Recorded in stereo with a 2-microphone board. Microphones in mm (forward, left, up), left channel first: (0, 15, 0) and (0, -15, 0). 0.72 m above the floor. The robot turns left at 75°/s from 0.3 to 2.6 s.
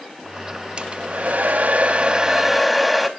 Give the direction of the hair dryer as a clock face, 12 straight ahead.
1 o'clock.